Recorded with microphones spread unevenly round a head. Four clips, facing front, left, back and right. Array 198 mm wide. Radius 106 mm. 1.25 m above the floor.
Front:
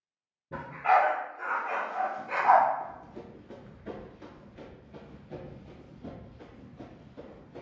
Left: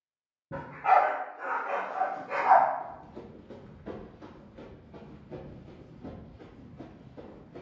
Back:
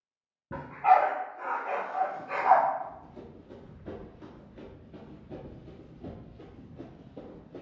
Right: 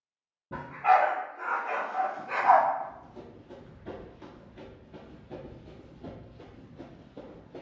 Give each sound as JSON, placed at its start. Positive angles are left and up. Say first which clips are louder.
{"t": 0.5, "sound": "a dog barking", "louder": "even, back 2 dB", "azimuth_deg": 175, "distance_m": 1.8}
{"t": 2.8, "sound": "running footsteps", "louder": "right 1 dB, even", "azimuth_deg": 35, "distance_m": 1.4}